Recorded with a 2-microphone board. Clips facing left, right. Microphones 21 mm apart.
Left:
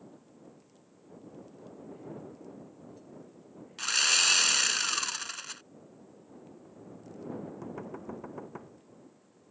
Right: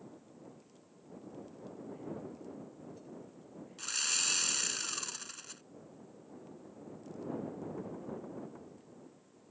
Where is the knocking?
40° left (ahead or behind).